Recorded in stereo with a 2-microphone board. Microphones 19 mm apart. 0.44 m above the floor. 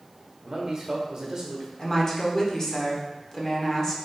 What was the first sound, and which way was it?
A man speaking, 35° right (ahead or behind).